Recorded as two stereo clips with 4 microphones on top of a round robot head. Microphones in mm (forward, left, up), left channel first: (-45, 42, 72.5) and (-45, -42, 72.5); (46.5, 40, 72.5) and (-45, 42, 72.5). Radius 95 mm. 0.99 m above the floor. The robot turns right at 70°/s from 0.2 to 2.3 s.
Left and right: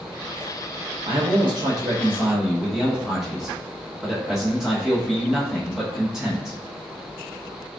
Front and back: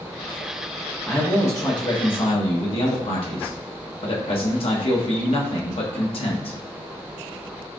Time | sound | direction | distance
1.1 | a man speaking | 90° right | 1.0 m